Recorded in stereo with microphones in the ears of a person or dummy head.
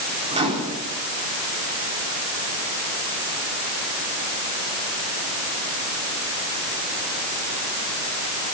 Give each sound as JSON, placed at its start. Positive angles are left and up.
{"t": 0.3, "sound": "a microwave", "side_deg": -30, "distance_m": 4.0}